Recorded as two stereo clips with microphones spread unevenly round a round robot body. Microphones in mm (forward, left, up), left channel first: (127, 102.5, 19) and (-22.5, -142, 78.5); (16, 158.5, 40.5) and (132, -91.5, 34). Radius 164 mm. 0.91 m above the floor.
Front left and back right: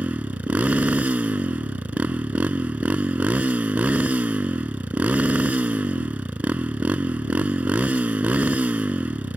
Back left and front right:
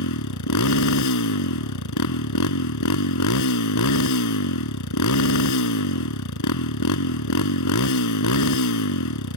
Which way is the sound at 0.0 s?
155° left.